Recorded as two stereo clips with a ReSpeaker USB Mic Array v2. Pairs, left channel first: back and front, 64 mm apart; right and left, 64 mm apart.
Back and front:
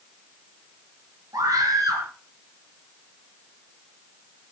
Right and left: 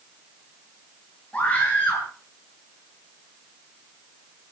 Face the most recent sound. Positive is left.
turn(degrees=-20)